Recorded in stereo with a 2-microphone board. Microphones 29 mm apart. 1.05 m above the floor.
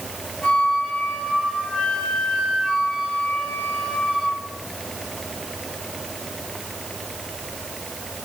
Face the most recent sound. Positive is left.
turn(degrees=70)  # may be behind; listen again after turning